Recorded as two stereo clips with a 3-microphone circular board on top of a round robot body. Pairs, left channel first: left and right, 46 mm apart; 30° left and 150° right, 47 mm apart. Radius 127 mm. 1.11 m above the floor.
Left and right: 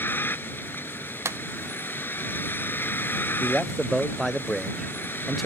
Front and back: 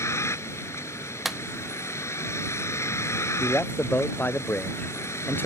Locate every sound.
0.0 s a vehicle: 50° left
1.2 s a clap: 65° right
3.4 s a man speaking: straight ahead